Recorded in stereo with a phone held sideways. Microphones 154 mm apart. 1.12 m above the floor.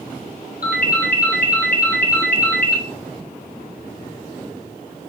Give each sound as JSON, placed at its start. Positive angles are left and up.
{"t": 0.6, "sound": "a ringtone", "side_deg": 80, "distance_m": 1.2}